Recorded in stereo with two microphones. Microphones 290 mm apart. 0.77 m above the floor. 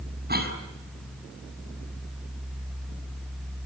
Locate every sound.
0.3 s a cough: 35° right (ahead or behind), 6.5 m